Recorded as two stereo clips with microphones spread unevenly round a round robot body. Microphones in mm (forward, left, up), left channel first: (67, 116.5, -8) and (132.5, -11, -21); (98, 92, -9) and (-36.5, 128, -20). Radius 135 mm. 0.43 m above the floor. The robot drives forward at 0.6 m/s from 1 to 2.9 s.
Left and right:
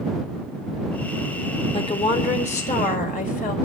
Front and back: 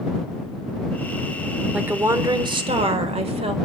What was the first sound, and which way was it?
A woman speaking, 95° left.